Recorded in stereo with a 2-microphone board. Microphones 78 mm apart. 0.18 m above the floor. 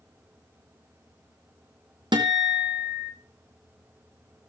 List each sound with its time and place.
2.1 s a guitar: 70° right (ahead or behind), 1.8 m